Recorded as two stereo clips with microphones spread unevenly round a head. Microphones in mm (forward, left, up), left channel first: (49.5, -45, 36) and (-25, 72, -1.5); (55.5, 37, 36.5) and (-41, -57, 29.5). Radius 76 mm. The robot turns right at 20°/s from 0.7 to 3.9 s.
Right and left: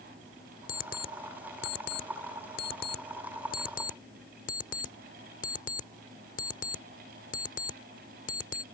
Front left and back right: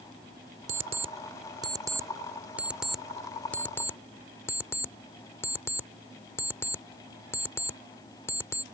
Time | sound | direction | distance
0.7 | an alarm clock | 90° right | ?